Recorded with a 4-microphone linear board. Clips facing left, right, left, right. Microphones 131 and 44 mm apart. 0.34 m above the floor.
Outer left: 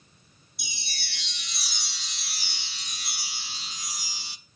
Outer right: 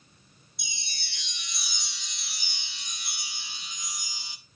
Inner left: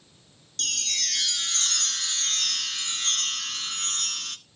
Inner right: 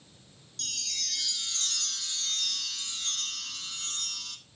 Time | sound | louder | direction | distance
0.6 | a chime | outer left 3 dB, inner left 8 dB | 65° left (ahead or behind) | 0.6 m